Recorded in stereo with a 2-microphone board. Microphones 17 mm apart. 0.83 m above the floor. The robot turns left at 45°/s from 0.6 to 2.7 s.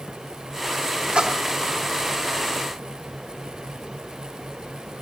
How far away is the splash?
About 1.1 m.